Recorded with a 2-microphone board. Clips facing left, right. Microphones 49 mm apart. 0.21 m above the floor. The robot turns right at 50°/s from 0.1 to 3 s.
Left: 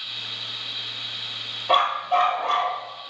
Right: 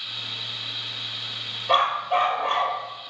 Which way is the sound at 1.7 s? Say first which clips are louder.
Left 1 dB; 170° left.